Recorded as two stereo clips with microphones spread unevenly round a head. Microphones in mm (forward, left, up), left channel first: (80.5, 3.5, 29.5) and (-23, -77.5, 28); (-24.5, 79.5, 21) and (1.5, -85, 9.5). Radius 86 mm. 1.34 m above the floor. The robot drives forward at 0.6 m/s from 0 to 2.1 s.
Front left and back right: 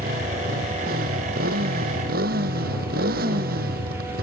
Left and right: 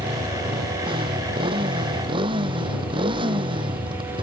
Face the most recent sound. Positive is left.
turn(degrees=-145)